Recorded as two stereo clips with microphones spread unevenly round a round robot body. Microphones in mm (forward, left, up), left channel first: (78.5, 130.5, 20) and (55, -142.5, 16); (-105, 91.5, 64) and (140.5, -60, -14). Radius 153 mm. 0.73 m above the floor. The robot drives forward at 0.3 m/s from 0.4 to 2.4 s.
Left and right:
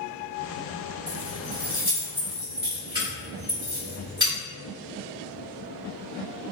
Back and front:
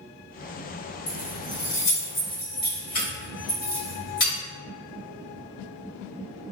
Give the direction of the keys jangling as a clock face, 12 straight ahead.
6 o'clock.